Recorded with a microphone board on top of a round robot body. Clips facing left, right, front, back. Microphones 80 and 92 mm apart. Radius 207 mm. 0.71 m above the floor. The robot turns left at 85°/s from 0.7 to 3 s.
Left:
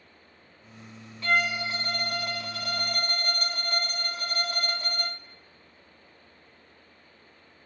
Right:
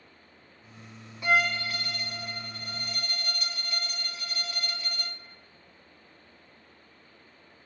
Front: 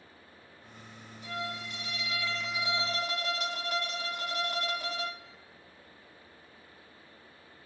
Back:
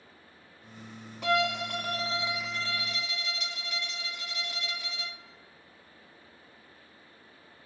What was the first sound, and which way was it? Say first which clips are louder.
A violin: right 1 dB, back 11 dB; 165° right.